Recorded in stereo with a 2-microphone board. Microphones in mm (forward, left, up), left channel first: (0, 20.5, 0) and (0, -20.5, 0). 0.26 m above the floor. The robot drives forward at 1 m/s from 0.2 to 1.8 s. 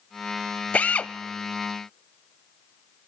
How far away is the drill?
About 0.5 m.